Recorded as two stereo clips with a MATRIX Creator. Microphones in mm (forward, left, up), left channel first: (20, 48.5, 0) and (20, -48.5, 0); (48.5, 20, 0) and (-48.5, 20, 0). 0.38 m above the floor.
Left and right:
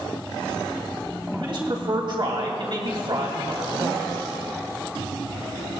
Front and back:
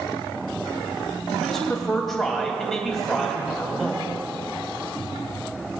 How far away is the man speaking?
About 2.5 m.